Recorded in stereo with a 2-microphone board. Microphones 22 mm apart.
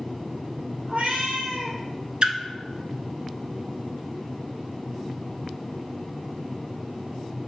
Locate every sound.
0.9 s a cat meowing: 80° right, 1.2 m
2.2 s a splash: 45° right (ahead or behind), 0.5 m